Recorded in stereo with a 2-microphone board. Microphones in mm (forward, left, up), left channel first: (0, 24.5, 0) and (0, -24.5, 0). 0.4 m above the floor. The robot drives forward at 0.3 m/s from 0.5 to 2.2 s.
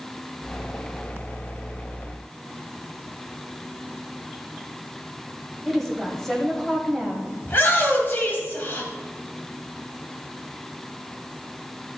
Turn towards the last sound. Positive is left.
turn(degrees=40)  # may be behind; listen again after turning